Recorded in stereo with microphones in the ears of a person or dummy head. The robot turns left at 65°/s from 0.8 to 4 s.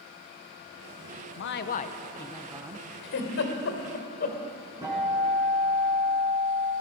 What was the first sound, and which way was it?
A man speaking, 65° left.